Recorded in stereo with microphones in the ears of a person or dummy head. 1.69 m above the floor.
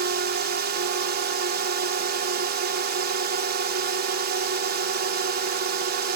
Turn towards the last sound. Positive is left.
turn(degrees=-45)  # may be behind; listen again after turning